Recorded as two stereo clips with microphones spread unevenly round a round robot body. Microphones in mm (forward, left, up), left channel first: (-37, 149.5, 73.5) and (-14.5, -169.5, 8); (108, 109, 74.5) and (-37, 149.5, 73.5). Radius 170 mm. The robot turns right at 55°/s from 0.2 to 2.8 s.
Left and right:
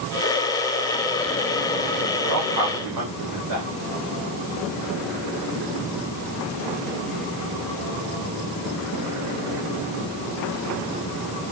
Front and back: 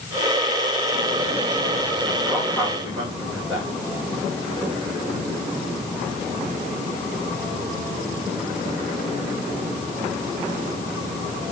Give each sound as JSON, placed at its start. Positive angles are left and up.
{"t": 2.2, "sound": "a man speaking", "azimuth_deg": -125, "distance_m": 3.5}